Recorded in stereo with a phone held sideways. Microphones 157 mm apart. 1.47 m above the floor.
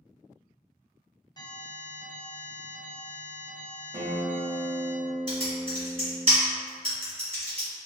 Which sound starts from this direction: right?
Typing on a keyboard, at 5.3 s.